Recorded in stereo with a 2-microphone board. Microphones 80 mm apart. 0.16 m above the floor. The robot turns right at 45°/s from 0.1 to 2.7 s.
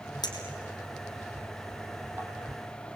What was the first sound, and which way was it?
A clink, 60° left (ahead or behind).